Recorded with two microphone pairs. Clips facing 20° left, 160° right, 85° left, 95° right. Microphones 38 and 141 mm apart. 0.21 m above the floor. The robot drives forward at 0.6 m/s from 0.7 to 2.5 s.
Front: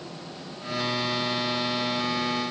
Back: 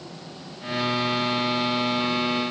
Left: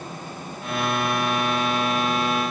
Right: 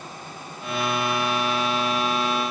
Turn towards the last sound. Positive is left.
No sound to turn to.